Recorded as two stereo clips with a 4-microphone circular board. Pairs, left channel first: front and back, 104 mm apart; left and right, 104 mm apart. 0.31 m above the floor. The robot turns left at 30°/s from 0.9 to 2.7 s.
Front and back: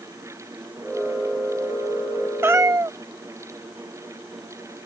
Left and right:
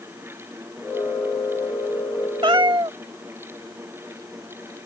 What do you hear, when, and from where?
2.4 s a cat meowing: 115° right; by 3.0 s 125° right